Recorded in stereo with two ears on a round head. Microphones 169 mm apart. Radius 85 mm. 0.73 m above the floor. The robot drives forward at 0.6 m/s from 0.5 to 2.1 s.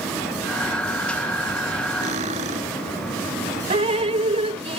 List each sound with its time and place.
2.0 s cutlery clinking: 40° right (ahead or behind)
3.7 s dripping: 35° right (ahead or behind)